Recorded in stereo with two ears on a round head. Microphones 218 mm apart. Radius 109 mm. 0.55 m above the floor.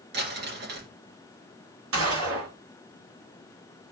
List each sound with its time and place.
0.1 s crumpling: 45° right (ahead or behind), 2.5 m
1.9 s a gunshot: 60° right (ahead or behind), 5 m